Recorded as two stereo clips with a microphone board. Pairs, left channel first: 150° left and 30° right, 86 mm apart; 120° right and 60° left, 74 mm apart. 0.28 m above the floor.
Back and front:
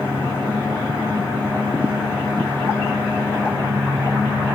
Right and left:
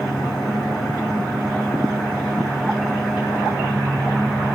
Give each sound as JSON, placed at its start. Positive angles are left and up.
{"t": 0.0, "sound": "an engine running", "azimuth_deg": -150, "distance_m": 6.0}